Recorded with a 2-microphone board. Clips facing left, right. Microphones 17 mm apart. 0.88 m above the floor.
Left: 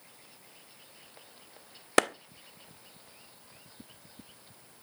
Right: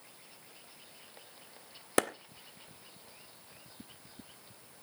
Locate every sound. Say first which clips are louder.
2.0 s a clap: left 5 dB; 30° left (ahead or behind), 0.5 m